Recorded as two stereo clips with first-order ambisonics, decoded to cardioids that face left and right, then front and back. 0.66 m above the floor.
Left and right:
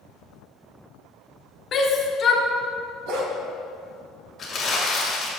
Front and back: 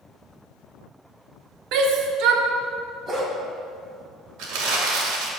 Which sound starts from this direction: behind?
Crumpling, at 4.4 s.